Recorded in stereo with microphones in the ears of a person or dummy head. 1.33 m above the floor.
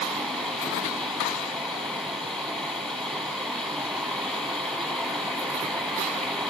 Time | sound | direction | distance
0.0 | running water | 5° left (ahead or behind) | 4.5 m